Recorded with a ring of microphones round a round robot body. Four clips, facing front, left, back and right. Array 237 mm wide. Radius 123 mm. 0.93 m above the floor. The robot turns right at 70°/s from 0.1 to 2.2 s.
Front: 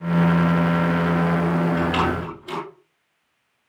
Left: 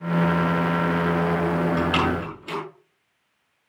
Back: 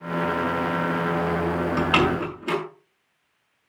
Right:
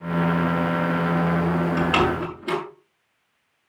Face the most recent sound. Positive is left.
turn(degrees=-145)